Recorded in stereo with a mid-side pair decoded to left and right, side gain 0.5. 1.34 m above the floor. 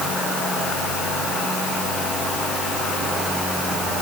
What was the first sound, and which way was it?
Only background noise.